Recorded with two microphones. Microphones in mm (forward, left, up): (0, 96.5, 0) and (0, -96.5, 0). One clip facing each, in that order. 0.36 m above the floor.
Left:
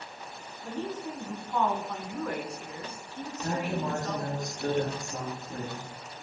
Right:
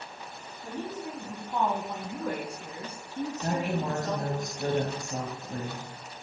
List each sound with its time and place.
0.6 s a woman speaking: 10° right (ahead or behind), 2 m; by 4.4 s 40° right (ahead or behind), 4 m
3.4 s a woman speaking: 55° right (ahead or behind), 2 m